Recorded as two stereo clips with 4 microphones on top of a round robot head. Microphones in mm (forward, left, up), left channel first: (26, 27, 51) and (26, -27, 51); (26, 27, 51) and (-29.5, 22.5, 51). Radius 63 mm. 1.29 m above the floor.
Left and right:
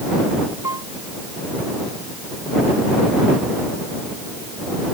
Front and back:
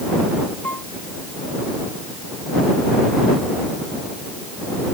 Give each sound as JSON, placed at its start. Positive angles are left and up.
{"t": 0.6, "sound": "a piano", "azimuth_deg": -55}